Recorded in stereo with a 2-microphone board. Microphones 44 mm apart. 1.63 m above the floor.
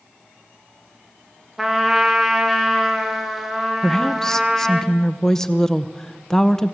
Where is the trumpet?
5° right (ahead or behind), 2.5 m.